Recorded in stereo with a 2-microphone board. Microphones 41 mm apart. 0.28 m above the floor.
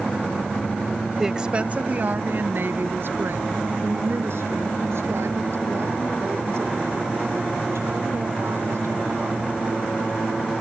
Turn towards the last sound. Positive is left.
turn(degrees=-80)